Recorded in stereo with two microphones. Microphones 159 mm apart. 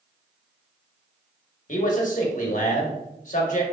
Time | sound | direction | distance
1.7 | a man speaking | 55° left (ahead or behind) | 1.1 m